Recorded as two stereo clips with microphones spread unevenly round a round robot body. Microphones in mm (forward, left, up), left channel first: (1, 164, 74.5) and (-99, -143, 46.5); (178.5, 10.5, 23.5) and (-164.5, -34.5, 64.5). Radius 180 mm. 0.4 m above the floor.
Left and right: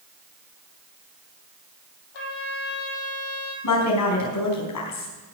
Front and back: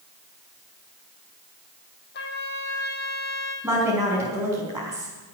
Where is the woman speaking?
105° left, 4.5 m.